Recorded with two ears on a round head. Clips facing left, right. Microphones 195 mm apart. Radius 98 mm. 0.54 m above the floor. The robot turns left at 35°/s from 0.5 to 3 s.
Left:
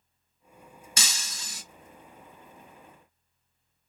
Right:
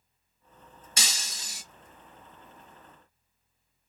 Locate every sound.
1.0 s breaking glass: 85° left, 1.2 m; by 1.6 s 65° left (ahead or behind), 1.2 m